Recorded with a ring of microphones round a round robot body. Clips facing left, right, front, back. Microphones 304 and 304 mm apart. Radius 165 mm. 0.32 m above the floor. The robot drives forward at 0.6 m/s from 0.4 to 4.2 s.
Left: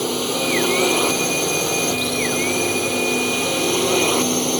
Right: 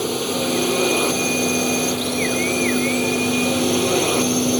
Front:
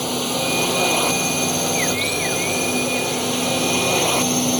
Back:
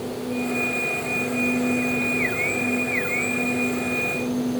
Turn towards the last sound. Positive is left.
turn(degrees=5)